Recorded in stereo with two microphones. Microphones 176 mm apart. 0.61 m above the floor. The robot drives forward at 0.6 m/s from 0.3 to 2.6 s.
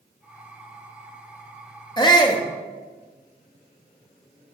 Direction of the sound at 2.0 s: 25° left (ahead or behind).